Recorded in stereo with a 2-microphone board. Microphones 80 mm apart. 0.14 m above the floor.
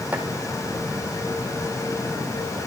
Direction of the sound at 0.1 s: 15° right (ahead or behind).